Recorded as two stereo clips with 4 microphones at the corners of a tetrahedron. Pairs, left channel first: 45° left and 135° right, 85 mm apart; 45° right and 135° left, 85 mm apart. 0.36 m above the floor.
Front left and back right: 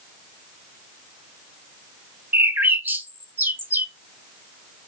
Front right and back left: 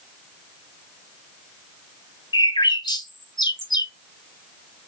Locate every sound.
2.3 s a bird: 70° right, 0.7 m